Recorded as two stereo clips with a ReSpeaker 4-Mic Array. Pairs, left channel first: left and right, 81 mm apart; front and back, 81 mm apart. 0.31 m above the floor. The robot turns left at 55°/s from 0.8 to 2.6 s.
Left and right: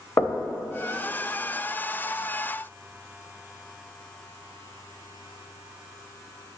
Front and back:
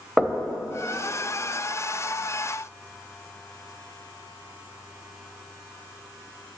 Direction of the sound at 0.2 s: 95° left.